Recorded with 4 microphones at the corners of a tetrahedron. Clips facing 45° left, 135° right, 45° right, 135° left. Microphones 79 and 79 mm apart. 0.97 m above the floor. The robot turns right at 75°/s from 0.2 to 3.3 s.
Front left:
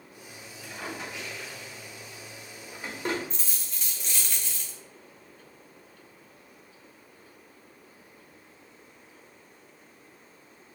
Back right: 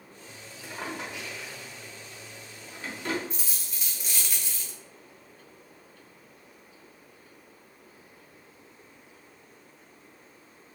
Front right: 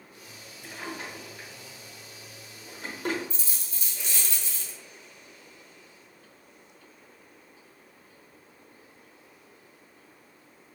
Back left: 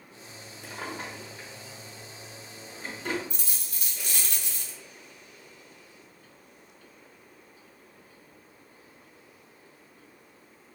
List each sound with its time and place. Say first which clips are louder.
0.6 s a drawer: back right 2 dB, back left 1 dB; 165° left, 1.0 m; by 3.2 s straight ahead, 1.0 m
3.3 s a dropped coin: back right 1 dB, even; 140° left, 0.6 m